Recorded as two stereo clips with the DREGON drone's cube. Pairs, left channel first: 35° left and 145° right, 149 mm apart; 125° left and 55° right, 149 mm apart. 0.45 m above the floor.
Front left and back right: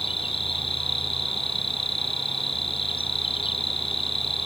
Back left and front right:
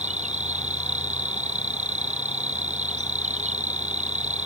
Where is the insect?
20° right.